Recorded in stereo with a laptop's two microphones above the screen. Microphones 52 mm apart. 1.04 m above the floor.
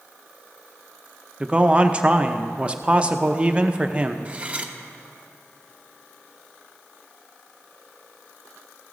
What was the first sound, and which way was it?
A man speaking, 25° right (ahead or behind).